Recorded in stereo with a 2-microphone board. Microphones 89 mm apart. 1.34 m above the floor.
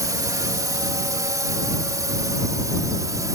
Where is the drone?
40° right (ahead or behind).